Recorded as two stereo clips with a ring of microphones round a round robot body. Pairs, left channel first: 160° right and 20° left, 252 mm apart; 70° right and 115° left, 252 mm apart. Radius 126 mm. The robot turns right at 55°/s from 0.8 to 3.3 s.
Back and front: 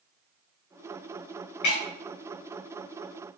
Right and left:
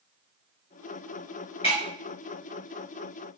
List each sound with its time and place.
1.6 s breaking glass: 135° right, 6 m; by 1.8 s 125° right, 6 m